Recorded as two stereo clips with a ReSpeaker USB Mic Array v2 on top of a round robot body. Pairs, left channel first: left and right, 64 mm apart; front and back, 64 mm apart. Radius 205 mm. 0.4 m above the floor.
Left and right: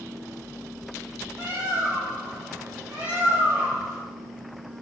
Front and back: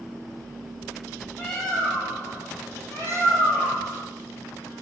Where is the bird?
60° right, 1.7 m.